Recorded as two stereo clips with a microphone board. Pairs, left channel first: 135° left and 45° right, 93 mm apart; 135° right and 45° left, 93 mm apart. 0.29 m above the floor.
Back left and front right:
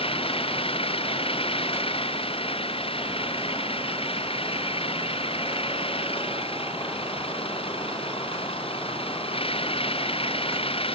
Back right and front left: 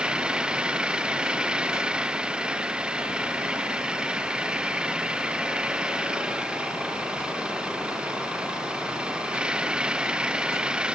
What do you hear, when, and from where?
0.0 s an engine running: 125° left